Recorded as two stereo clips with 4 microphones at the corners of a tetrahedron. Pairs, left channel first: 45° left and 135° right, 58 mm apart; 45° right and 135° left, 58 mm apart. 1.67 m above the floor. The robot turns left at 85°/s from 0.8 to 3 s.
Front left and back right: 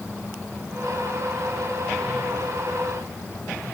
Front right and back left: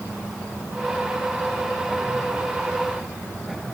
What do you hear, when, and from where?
Only background noise.